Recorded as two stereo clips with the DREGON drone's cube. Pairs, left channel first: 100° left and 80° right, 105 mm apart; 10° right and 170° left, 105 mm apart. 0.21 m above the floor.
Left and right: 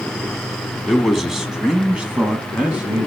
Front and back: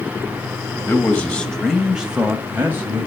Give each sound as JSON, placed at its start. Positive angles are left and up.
{"t": 0.9, "sound": "a man speaking", "azimuth_deg": 10, "distance_m": 1.4}